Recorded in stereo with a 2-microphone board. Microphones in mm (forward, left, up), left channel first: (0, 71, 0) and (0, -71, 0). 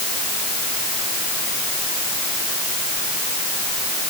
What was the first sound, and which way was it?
Only background noise.